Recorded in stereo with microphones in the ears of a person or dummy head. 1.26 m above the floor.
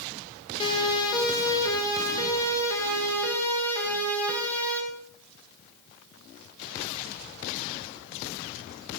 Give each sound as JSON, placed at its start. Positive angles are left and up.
{"t": 0.6, "sound": "a siren", "side_deg": 25, "distance_m": 7.0}